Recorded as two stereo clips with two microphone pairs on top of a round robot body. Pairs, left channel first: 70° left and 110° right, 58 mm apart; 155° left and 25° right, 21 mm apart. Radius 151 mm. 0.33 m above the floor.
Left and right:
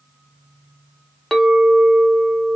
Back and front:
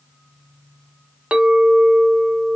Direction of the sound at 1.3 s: 10° right.